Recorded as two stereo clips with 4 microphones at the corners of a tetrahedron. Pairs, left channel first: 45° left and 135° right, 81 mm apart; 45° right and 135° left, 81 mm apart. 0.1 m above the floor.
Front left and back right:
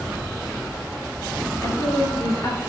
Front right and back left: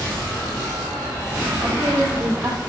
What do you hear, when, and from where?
1.6 s a woman speaking: 85° left, 3 m